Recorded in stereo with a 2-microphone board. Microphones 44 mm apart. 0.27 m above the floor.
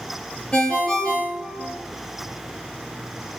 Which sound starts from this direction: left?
A ringtone, at 0.5 s.